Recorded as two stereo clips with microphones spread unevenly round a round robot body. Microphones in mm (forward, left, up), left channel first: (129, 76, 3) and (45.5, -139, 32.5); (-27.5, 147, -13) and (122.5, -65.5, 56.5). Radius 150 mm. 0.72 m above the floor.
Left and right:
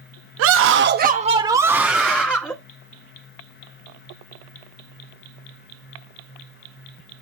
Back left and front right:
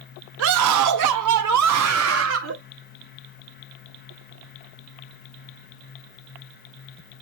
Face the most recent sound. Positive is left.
turn(degrees=-10)